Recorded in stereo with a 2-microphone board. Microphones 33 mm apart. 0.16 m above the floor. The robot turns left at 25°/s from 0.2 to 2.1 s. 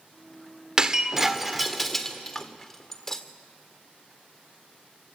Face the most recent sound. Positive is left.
turn(degrees=15)  # may be behind; listen again after turning